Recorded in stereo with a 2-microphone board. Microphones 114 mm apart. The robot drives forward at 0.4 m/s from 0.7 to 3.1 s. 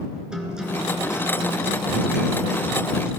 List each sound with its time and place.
0.3 s a guitar: 5° right (ahead or behind), 3 m